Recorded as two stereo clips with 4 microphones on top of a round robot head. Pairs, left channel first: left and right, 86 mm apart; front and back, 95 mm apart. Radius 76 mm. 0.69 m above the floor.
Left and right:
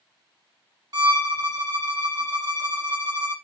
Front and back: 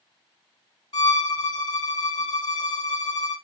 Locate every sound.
0.9 s a violin: 50° right, 1.0 m